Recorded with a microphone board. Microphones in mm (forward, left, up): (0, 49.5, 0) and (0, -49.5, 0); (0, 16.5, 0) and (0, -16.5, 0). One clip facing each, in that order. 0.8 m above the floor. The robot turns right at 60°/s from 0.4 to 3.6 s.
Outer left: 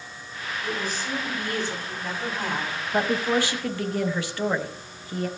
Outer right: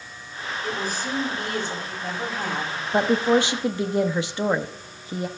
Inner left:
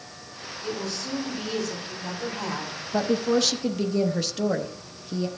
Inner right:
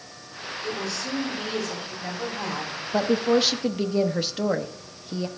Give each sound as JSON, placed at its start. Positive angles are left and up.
{"t": 0.6, "sound": "a woman speaking", "azimuth_deg": -145, "distance_m": 5.0}
{"t": 2.9, "sound": "a woman speaking", "side_deg": -20, "distance_m": 0.7}